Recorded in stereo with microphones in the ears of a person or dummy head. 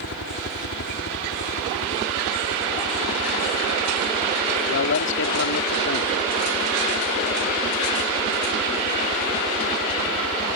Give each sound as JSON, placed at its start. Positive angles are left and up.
{"t": 0.0, "sound": "a helicopter", "side_deg": 60}
{"t": 4.7, "sound": "a man speaking", "side_deg": 70}